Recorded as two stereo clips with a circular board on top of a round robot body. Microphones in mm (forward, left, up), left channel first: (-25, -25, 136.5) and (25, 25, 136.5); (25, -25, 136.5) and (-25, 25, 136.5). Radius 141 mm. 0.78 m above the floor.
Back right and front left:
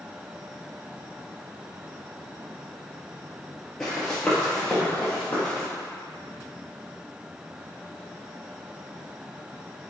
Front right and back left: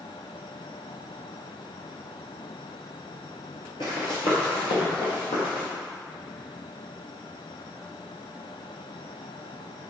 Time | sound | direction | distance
3.8 | running footsteps | 50° right | 1.0 m